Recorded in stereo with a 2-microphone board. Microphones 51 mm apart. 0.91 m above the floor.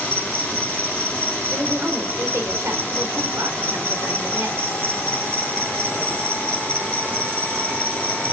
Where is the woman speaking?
80° right, 3 m.